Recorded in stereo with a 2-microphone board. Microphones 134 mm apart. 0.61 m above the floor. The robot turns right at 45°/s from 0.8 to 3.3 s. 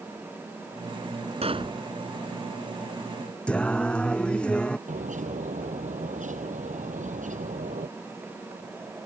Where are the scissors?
I don't hear scissors.